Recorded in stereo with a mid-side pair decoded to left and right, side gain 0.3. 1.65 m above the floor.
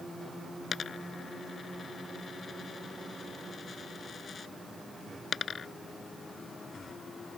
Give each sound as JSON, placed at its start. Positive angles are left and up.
{"t": 0.7, "sound": "a dropped coin", "azimuth_deg": 60}